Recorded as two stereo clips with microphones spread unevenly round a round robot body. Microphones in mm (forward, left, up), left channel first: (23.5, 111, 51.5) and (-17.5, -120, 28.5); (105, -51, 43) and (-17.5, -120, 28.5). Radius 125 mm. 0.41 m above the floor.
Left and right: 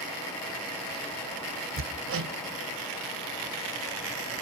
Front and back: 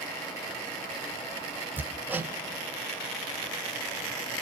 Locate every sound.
1.8 s hammering: 75° right, 1.8 m